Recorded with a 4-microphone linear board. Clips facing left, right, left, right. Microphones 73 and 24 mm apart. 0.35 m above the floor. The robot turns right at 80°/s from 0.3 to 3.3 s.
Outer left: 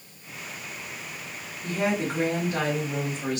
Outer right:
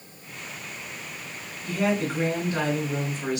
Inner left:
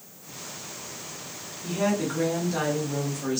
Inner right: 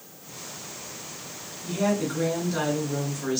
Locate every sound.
1.6 s a woman speaking: 85° left, 1.6 m; by 3.4 s 145° right, 1.6 m